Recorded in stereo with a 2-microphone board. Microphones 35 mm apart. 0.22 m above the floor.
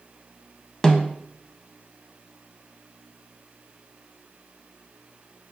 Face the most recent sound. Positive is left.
turn(degrees=15)  # may be behind; listen again after turning